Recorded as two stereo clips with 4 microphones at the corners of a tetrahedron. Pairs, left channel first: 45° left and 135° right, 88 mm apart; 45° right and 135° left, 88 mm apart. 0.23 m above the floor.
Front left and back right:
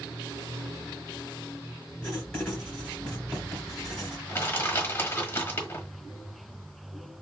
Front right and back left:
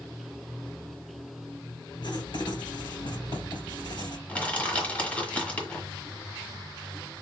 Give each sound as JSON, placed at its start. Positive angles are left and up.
{"t": 2.0, "sound": "writing", "azimuth_deg": -35, "distance_m": 2.5}
{"t": 4.3, "sound": "crushing", "azimuth_deg": 10, "distance_m": 1.4}